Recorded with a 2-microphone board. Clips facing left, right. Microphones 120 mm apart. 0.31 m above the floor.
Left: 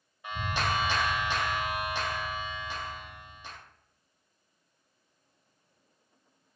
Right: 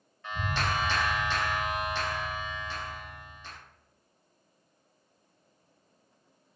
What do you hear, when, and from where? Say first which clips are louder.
0.2 s a clap: even; 15° left (ahead or behind), 0.7 m